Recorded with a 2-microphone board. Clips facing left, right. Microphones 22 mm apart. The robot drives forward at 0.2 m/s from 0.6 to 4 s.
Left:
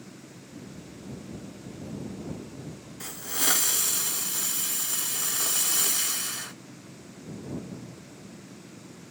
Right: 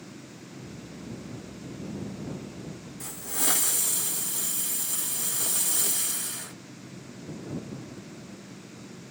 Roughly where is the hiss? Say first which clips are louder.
Left 2 dB; left.